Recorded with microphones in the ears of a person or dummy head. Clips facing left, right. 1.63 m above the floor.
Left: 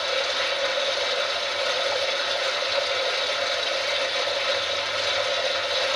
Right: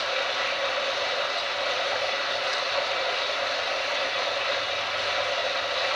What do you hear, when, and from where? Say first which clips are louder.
0.0 s running water: left 3 dB; 55° left (ahead or behind), 4.5 m